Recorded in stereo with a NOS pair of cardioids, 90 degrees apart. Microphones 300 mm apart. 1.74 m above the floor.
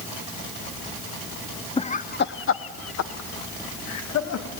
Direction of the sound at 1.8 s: 15° left.